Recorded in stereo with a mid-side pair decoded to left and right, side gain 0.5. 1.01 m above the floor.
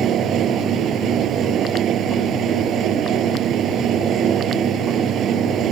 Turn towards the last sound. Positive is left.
turn(degrees=-60)